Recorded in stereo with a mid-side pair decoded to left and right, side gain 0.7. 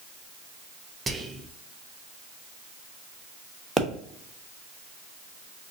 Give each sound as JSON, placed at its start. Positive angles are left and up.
{"t": 1.1, "sound": "whispering", "azimuth_deg": -15, "distance_m": 0.5}
{"t": 3.8, "sound": "a pop", "azimuth_deg": -15, "distance_m": 0.9}